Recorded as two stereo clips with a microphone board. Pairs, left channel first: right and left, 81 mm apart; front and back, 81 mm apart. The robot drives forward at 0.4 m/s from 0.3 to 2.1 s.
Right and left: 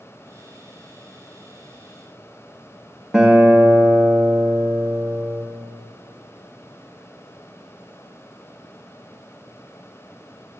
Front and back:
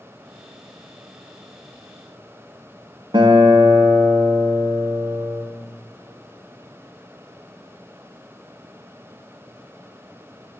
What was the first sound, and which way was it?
A guitar, 175° left.